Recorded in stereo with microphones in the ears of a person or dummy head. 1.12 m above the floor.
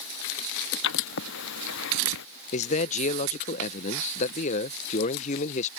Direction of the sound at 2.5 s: 35° left (ahead or behind).